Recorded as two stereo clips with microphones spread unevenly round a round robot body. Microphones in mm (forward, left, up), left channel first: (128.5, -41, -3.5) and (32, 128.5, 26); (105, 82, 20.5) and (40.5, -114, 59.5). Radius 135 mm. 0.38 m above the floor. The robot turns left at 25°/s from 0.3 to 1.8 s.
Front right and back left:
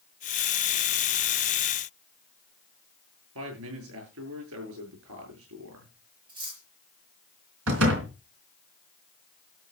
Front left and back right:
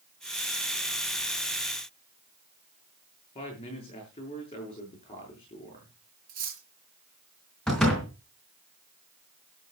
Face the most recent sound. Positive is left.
turn(degrees=155)